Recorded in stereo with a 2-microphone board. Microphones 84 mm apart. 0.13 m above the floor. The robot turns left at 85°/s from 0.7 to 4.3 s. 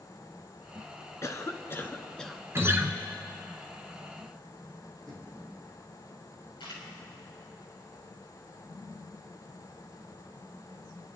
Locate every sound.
1.2 s a cough: 100° left, 1.2 m; by 2.4 s 5° right, 1.2 m
2.5 s a guitar: 30° right (ahead or behind), 1.1 m; by 2.9 s 25° right (ahead or behind), 1.1 m
5.1 s knocking: 5° left (ahead or behind), 5.5 m
6.6 s a camera shutter: 70° left (ahead or behind), 4.5 m